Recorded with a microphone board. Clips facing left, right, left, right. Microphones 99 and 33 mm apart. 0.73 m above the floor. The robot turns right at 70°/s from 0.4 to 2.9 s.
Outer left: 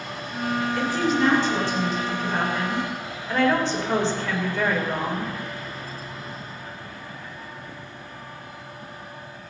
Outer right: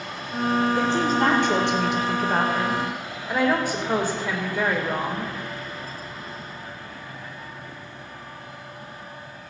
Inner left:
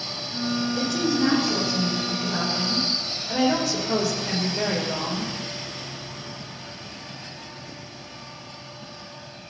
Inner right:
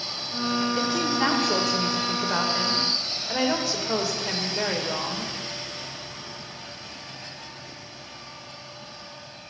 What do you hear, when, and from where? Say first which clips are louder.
0.8 s a woman speaking: outer right 1 dB, inner left 1 dB; 160° right, 3 m; by 5.3 s 10° right, 3 m